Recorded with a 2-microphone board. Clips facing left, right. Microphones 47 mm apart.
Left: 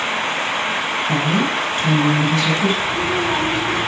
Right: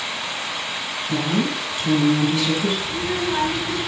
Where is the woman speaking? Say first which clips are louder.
Left 2 dB; 55° left (ahead or behind), 4.5 m.